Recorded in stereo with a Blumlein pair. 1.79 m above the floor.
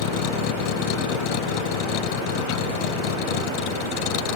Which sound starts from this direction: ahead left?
A vehicle, at 0.0 s.